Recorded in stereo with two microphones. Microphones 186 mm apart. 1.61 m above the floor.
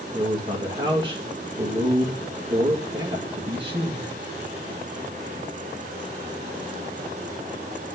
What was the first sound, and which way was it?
A man speaking, 25° right (ahead or behind).